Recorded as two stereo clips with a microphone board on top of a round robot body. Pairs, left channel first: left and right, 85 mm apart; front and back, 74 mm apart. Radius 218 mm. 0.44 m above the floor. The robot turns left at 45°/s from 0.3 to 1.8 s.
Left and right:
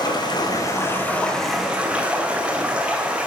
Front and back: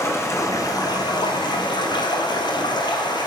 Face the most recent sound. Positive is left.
turn(degrees=-10)